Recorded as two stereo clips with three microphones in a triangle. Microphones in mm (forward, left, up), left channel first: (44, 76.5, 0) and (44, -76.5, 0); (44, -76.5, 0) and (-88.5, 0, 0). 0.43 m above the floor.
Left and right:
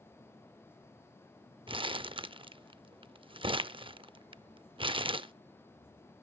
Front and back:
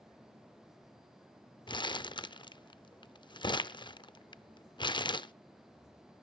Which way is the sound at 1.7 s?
65° right.